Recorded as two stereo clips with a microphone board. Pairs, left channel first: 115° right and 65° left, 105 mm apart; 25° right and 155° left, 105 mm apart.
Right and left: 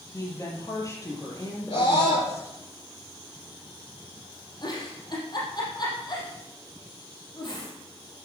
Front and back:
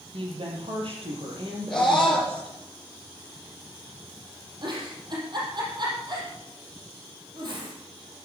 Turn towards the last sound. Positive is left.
turn(degrees=-160)